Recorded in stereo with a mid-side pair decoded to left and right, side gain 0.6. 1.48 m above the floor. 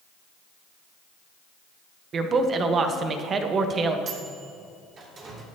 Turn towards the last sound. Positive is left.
turn(degrees=-40)